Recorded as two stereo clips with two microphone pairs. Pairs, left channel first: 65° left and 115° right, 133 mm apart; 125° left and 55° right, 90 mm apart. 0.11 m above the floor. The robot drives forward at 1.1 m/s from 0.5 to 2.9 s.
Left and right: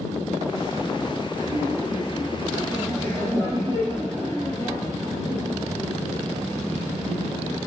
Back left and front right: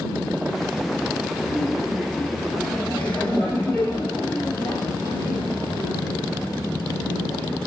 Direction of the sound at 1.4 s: 120° right.